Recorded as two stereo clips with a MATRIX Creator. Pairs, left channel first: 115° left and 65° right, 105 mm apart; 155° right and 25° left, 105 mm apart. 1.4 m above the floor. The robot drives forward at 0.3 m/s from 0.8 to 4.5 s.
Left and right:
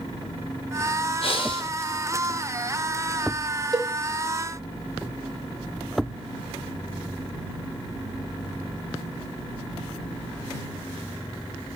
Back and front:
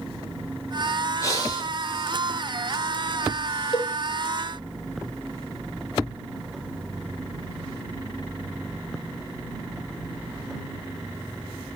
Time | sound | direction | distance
1.2 | breathing | 145° left | 0.5 m
3.7 | a cowbell | 120° right | 0.6 m